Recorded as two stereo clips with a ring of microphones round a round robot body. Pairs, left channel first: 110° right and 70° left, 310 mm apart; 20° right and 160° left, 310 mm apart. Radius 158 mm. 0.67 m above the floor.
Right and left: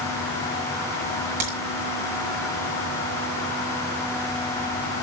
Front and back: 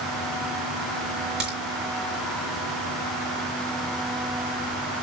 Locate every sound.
1.4 s a crack: 70° left, 6.5 m